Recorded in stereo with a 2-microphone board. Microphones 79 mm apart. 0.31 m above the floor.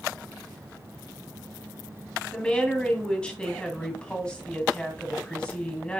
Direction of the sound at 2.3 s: 10° left (ahead or behind).